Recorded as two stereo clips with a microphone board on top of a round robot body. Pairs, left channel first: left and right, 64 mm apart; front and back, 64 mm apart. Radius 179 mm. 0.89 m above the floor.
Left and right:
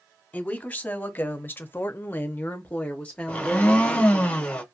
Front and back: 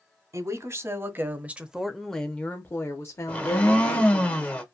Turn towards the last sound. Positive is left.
turn(degrees=40)